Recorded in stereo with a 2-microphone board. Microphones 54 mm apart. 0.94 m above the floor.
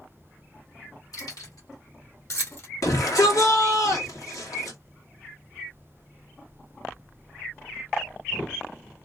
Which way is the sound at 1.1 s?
85° left.